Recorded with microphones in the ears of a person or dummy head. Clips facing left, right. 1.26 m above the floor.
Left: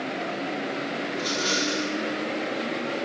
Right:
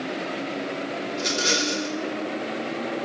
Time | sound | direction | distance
1.1 | a rattle | 25° right (ahead or behind) | 1.1 m